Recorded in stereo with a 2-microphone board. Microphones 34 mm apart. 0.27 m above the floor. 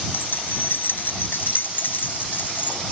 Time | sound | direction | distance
0.1 | keys jangling | 75° left (ahead or behind) | ?